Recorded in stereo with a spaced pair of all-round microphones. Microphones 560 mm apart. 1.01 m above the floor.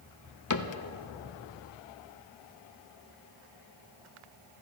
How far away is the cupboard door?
About 0.7 m.